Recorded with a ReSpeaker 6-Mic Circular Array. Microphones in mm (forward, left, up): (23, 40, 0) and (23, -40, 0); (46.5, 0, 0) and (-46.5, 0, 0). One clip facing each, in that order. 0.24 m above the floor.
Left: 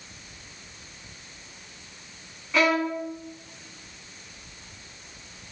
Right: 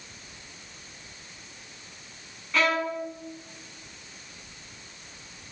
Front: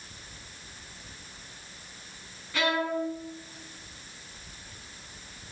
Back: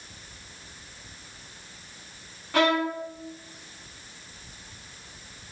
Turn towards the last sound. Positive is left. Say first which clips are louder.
# left 3 dB, back 4 dB
turn(degrees=175)